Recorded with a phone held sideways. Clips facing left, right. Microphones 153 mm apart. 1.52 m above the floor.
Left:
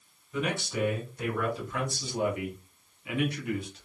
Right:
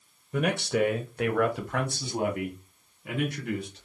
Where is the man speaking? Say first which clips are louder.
Right 5 dB; 55° right (ahead or behind), 0.6 m; by 3.9 s 40° right (ahead or behind), 1.9 m.